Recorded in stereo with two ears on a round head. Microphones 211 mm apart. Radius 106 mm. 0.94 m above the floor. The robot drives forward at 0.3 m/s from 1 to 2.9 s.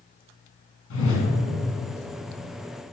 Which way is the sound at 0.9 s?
55° left (ahead or behind).